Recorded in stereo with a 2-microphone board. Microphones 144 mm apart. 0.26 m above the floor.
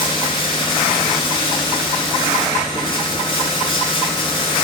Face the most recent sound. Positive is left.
turn(degrees=35)  # may be behind; listen again after turning